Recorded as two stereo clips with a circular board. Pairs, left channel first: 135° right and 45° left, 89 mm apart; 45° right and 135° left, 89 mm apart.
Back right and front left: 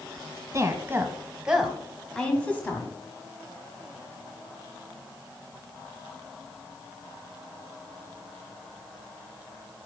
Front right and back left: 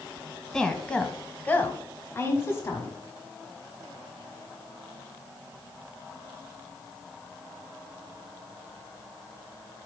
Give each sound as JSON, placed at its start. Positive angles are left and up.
{"t": 0.5, "sound": "a woman speaking", "azimuth_deg": 35, "distance_m": 1.1}